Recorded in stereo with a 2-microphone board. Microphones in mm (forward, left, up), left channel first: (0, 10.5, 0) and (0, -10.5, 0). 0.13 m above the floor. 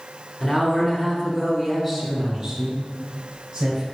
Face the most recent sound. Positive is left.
turn(degrees=-35)  # may be behind; listen again after turning